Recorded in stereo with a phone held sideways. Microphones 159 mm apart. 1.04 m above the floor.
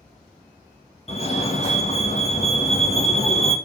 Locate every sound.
1.1 s a fire alarm: 40° left (ahead or behind), 2.5 m